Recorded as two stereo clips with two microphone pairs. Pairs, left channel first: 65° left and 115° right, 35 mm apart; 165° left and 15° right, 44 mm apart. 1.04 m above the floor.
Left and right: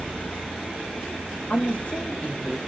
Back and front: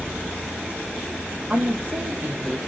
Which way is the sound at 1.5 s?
40° left.